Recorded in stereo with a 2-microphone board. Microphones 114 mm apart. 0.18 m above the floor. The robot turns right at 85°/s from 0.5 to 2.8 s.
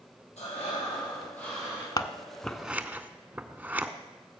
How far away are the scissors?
About 0.7 m.